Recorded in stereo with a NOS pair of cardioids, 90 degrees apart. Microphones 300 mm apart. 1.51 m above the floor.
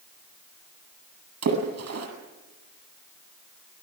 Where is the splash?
55° right, 9 m.